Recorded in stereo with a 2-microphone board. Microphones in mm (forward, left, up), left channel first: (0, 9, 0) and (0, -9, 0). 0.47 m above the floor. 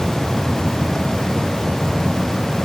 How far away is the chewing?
I don't hear chewing.